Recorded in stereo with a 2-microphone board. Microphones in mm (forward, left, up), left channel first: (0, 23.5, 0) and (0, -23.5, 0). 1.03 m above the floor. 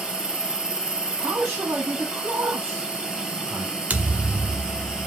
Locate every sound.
0.0 s an insect: 20° right (ahead or behind), 1.4 m
1.2 s a man speaking: 80° right, 1.7 m
3.9 s a thud: 40° right (ahead or behind), 0.8 m